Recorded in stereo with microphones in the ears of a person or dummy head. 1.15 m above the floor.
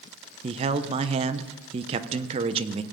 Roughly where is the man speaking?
Right.